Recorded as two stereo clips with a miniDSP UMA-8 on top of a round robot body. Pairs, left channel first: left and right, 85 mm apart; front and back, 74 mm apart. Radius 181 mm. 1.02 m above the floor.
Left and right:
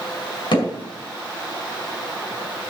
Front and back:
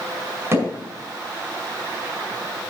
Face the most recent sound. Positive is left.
turn(degrees=120)